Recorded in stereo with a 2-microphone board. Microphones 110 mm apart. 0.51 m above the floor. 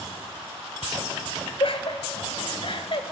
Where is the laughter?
60° left (ahead or behind), 2 m; by 3.1 s 55° left (ahead or behind), 2.5 m.